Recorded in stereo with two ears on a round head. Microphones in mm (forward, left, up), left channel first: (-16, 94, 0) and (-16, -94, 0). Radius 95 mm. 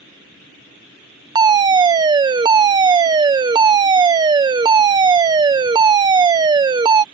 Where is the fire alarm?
20° right (ahead or behind).